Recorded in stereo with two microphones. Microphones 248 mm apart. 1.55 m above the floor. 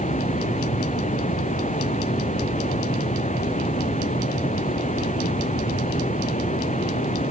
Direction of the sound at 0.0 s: 30° left (ahead or behind).